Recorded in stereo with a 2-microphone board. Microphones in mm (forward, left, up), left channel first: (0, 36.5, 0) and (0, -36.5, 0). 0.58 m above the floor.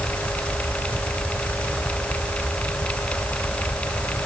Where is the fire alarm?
No fire alarm in this recording.